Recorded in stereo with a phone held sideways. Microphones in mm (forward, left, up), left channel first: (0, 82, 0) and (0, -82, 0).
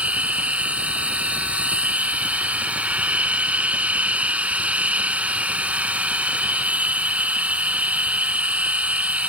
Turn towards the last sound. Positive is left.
turn(degrees=-10)  # may be behind; listen again after turning